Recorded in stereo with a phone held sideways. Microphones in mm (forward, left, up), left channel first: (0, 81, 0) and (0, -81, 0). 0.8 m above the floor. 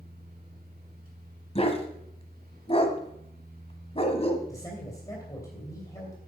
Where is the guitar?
I don't hear a guitar.